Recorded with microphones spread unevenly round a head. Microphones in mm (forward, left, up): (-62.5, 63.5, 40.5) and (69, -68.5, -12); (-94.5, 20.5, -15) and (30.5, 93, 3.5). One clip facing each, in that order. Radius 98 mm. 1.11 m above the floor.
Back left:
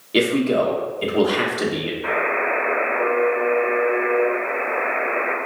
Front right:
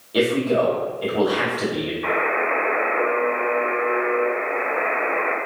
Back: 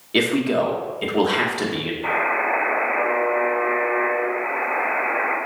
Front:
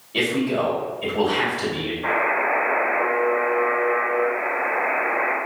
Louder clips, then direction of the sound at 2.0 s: Back left 1 dB, front 1 dB; 60° right.